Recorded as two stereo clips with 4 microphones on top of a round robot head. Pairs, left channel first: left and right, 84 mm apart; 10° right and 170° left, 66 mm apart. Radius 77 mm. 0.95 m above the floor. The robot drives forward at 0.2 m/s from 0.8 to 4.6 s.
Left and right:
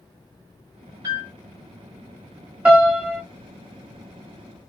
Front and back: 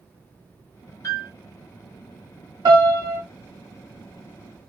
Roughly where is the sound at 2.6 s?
Behind.